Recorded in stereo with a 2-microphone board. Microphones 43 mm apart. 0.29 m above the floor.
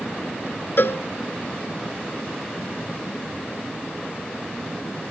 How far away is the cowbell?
About 0.6 m.